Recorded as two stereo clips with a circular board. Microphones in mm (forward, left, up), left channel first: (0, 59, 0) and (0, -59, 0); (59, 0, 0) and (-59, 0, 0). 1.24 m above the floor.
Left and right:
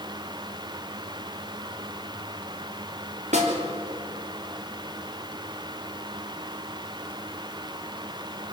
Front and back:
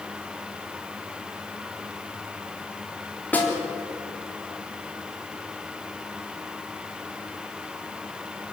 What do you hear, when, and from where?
3.3 s a snare drum: 75° right, 3.5 m